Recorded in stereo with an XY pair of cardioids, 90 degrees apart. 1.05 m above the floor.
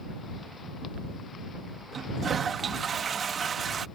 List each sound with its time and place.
1.9 s a toilet flushing: 55° right